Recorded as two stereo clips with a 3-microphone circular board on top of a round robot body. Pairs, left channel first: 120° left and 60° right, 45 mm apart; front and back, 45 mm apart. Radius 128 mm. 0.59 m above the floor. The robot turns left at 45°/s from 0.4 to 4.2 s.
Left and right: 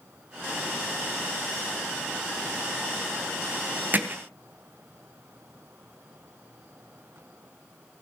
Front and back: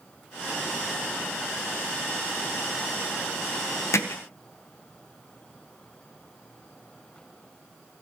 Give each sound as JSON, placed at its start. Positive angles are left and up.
{"t": 3.9, "sound": "hammering", "azimuth_deg": -10, "distance_m": 3.0}